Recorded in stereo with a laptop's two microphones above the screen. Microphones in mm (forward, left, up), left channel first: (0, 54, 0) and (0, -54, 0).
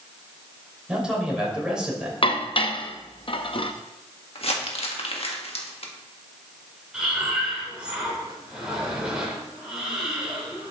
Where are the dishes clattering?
55° left (ahead or behind), 0.6 m.